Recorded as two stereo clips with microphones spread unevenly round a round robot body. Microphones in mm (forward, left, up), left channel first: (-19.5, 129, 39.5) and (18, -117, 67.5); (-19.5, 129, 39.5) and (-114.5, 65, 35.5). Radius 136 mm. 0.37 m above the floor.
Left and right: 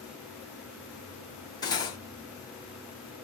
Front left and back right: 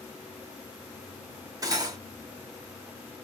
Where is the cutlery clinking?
165° left, 0.8 m.